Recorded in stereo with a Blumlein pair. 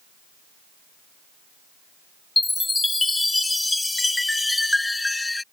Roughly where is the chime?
Ahead.